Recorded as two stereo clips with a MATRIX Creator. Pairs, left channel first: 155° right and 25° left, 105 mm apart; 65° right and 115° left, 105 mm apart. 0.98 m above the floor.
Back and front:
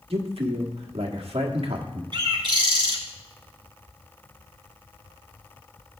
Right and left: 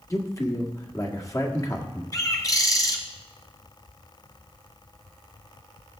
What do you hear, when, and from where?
0.1 s a man speaking: 5° right, 1.5 m
2.1 s a bird: 15° right, 1.6 m